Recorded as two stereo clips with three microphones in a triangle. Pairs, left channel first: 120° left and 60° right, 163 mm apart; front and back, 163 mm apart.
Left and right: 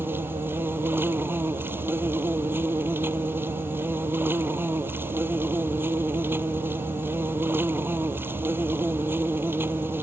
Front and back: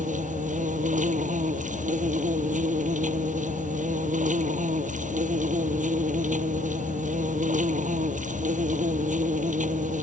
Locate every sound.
0.0 s an insect: 140° right